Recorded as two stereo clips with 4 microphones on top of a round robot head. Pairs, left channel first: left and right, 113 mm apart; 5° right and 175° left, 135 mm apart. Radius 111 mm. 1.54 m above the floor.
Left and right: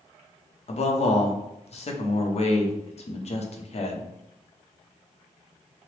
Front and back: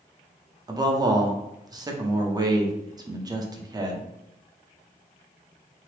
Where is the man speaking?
115° left, 0.6 m.